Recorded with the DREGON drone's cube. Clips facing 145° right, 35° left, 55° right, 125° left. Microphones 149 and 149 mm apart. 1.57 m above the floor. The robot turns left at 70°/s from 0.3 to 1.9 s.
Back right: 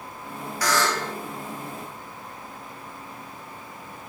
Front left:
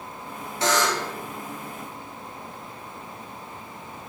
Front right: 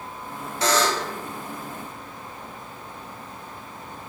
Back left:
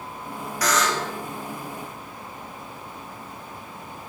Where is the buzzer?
15° right, 0.7 m; by 1.1 s 50° right, 0.7 m.